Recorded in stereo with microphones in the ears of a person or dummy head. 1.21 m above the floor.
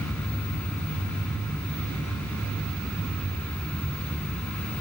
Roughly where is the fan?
Centre.